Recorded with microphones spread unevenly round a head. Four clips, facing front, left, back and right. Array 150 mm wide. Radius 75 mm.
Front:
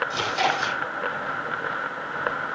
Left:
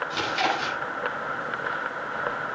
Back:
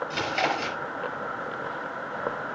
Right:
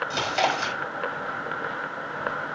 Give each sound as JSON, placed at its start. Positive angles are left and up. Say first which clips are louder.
{"t": 0.1, "sound": "chewing", "louder": "right 2 dB, front 3 dB", "azimuth_deg": -115, "distance_m": 5.5}